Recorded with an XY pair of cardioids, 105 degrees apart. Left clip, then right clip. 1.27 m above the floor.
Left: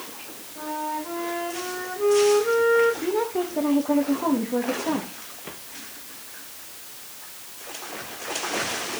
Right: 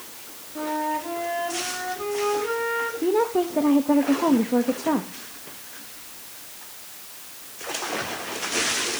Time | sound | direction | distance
0.6 | a flute | 65° right | 6 m
3.0 | a woman speaking | 30° right | 1.3 m